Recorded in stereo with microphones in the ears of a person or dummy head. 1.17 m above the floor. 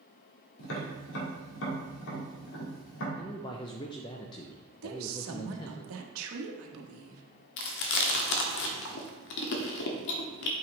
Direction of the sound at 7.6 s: 60° left (ahead or behind).